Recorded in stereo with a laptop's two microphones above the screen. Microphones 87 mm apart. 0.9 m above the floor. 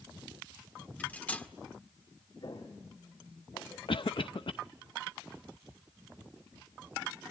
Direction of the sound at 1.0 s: 15° left (ahead or behind).